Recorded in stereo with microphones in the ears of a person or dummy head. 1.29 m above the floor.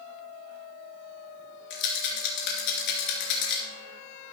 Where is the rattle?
65° left (ahead or behind), 3.5 m.